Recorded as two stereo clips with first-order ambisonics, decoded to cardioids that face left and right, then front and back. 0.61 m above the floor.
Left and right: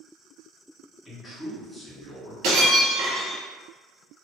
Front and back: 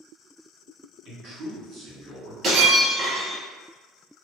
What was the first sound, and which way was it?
A man speaking, 160° left.